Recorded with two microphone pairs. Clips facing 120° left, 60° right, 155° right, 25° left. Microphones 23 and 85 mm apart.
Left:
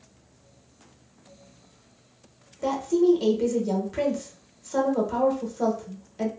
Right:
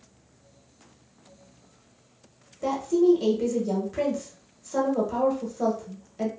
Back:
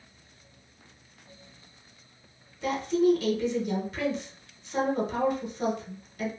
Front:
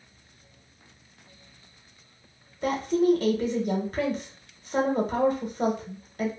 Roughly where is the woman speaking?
Ahead left.